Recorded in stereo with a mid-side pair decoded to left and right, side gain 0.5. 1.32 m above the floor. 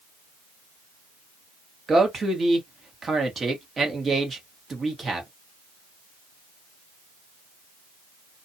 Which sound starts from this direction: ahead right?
A man speaking, at 1.9 s.